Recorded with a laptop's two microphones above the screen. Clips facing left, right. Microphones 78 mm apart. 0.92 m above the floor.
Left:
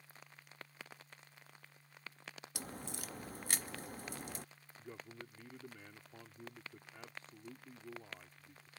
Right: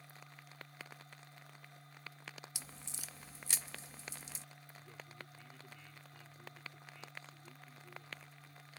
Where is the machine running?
70° right (ahead or behind).